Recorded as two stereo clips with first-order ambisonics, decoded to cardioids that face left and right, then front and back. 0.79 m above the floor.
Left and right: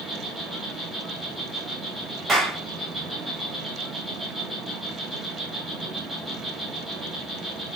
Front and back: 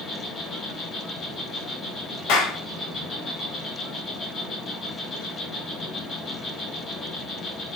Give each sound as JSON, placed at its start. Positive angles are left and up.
{"t": 0.0, "sound": "an insect", "azimuth_deg": -10, "distance_m": 1.5}
{"t": 2.3, "sound": "a clap", "azimuth_deg": -15, "distance_m": 1.4}